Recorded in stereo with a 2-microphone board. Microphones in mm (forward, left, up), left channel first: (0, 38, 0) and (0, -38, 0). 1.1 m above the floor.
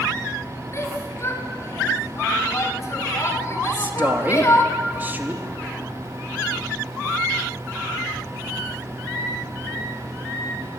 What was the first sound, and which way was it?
A shout, 40° left (ahead or behind).